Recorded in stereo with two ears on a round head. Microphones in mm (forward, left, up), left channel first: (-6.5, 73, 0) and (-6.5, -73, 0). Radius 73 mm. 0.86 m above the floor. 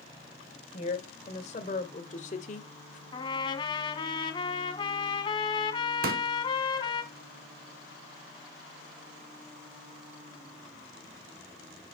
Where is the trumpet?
30° left (ahead or behind), 1.6 m.